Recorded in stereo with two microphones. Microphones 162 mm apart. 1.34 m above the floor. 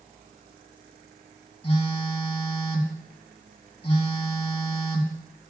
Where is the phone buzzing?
35° left (ahead or behind), 2.5 m.